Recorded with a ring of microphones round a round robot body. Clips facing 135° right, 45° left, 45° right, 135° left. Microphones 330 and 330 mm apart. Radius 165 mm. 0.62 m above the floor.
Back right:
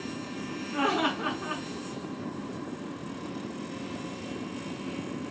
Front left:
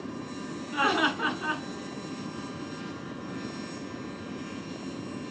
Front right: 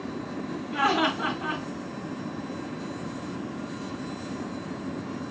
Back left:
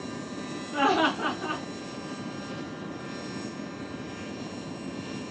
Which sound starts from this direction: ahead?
Laughter, at 0.7 s.